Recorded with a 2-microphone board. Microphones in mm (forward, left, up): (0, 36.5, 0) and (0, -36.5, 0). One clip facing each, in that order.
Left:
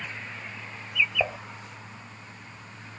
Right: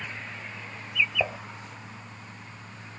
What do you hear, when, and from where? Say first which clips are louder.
1.2 s dishes clattering: left 1 dB; 5° left (ahead or behind)